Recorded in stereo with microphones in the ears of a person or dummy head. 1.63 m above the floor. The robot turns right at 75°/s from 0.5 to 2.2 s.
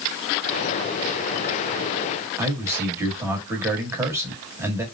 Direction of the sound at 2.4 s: 10° right (ahead or behind).